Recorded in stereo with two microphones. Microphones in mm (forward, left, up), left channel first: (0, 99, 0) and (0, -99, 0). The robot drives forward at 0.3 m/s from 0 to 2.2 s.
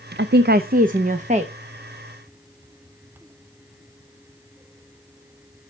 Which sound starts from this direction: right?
A woman speaking, at 0.2 s.